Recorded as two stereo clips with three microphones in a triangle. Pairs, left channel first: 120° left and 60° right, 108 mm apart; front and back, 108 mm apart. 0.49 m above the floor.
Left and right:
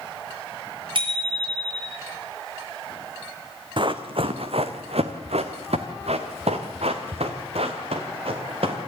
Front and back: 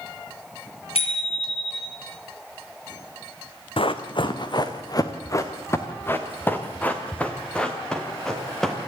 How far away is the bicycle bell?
About 7 m.